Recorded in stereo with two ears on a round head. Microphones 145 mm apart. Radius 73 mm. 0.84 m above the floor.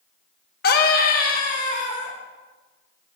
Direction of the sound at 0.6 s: 60° left (ahead or behind).